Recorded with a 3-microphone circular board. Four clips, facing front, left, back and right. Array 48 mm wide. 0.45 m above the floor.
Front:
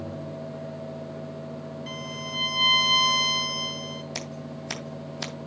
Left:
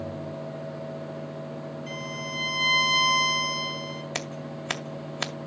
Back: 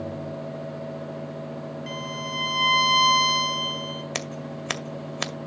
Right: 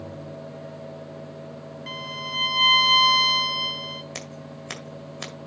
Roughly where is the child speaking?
I don't hear a child speaking.